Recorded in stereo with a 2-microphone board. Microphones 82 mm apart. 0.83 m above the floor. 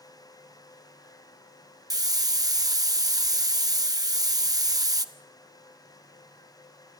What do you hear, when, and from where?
1.9 s a hiss: 50° right (ahead or behind), 0.9 m